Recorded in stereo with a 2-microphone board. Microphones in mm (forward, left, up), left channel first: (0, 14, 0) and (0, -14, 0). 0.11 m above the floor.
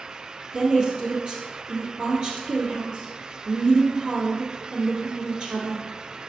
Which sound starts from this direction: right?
A woman speaking, at 0.5 s.